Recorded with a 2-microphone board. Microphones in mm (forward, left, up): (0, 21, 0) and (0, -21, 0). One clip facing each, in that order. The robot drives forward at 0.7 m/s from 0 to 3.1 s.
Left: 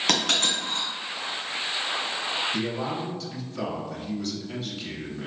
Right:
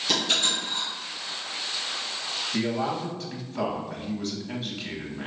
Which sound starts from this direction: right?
A man speaking, at 2.5 s.